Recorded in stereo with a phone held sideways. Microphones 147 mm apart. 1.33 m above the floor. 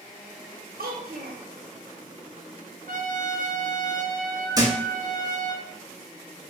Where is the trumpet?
65° right (ahead or behind), 0.6 m.